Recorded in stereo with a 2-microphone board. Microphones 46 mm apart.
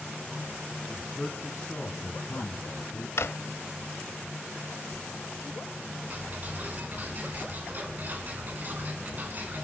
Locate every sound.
0.9 s a man speaking: 10° left (ahead or behind), 3 m; by 3.1 s 60° left (ahead or behind), 3 m
3.2 s a drawer: 65° left (ahead or behind), 0.7 m
6.1 s ticking: 40° right (ahead or behind), 3.5 m